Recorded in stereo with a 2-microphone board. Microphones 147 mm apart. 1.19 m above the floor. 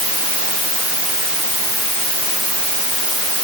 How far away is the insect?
I don't hear an insect.